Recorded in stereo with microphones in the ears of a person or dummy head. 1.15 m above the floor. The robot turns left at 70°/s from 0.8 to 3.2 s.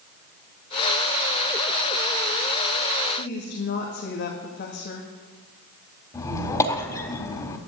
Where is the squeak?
15° left (ahead or behind), 1.4 m.